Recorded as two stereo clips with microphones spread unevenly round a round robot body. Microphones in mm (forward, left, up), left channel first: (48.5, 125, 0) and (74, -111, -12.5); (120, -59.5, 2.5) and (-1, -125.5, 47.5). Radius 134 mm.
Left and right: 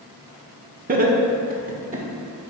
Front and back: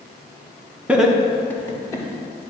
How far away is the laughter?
About 0.9 m.